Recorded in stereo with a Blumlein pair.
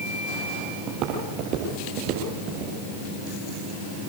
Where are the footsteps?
40° right, 5.5 m; by 2.7 s 45° right, 6 m.